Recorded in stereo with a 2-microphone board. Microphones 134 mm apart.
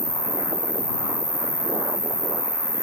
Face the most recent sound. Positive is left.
turn(degrees=85)